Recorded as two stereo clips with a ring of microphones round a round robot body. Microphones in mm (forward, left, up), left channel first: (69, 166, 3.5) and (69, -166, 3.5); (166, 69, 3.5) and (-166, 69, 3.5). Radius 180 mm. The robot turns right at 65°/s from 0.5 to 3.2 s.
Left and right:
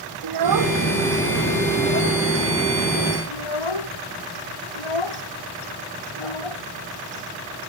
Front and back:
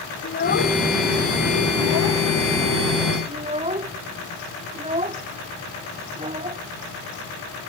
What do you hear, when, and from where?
0.2 s a child speaking: 65° right; by 6.6 s 110° left